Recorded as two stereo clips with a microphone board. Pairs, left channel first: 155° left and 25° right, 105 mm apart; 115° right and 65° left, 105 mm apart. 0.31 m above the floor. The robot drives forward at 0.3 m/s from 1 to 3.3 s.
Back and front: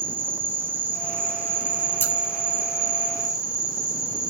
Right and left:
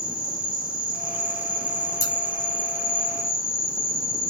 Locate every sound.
0.0 s an insect: 45° left, 3 m; by 4.3 s 60° left, 2.5 m
2.0 s scissors: 150° right, 1.5 m